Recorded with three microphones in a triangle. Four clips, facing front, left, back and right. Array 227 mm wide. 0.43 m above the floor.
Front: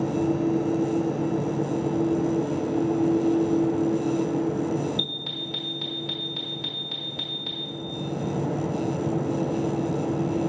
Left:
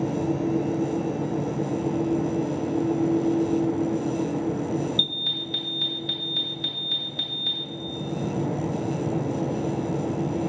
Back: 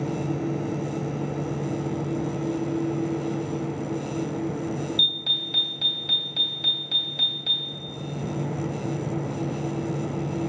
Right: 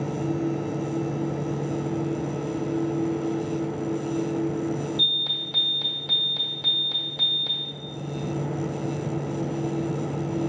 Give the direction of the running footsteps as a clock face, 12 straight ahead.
No running footsteps in this recording.